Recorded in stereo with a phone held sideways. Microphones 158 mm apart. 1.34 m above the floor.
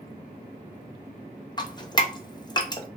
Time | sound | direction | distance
1.6 | dripping | 25° left (ahead or behind) | 0.7 m